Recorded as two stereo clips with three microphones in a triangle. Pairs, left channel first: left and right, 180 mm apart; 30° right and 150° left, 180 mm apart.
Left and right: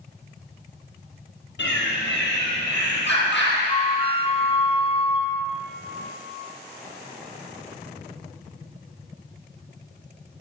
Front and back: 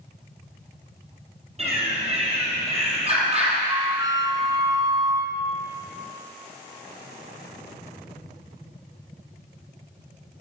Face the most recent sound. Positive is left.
turn(degrees=100)